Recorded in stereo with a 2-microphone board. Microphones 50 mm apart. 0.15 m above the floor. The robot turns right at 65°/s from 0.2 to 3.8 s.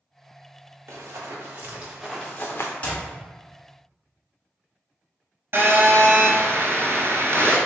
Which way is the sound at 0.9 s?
65° right (ahead or behind).